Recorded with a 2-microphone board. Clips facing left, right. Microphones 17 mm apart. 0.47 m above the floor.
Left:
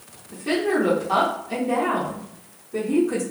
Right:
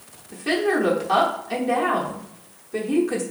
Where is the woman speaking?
30° right (ahead or behind), 0.7 m.